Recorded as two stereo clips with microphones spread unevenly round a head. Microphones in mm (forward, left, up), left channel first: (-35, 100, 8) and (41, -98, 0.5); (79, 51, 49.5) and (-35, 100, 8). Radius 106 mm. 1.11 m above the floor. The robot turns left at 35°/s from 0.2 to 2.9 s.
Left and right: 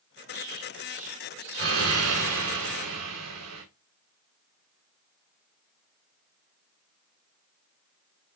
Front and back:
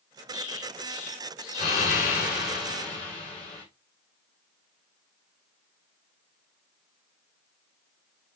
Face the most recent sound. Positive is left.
turn(degrees=-75)